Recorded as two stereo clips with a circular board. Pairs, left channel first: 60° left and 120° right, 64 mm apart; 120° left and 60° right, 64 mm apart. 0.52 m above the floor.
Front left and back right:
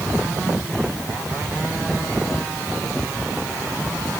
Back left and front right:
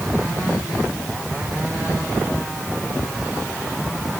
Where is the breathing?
No breathing in this recording.